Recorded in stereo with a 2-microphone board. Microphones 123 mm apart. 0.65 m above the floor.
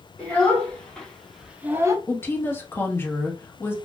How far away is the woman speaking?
About 0.7 m.